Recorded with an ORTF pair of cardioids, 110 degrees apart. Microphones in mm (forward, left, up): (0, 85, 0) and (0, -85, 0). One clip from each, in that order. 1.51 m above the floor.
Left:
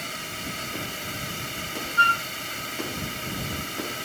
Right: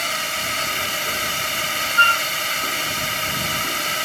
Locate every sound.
0.0 s a drone: 60° right
2.0 s a flute: 25° right